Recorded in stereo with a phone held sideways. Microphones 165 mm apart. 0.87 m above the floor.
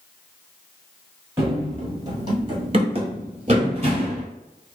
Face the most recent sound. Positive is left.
turn(degrees=-40)  # may be behind; listen again after turning